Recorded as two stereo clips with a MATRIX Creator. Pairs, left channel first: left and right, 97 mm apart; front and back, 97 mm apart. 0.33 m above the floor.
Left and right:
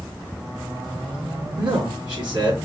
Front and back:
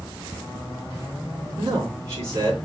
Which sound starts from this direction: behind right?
A man speaking, at 1.6 s.